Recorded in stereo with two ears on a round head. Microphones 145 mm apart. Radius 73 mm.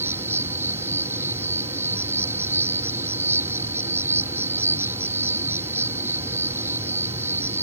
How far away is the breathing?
No breathing in this recording.